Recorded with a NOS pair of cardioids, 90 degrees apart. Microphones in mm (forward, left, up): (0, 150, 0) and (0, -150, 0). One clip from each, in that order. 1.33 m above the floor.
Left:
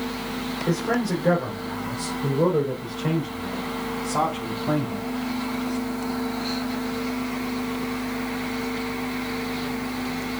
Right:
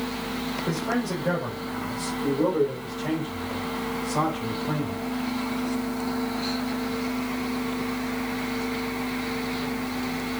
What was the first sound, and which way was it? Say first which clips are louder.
A man speaking: left 5 dB; 30° left.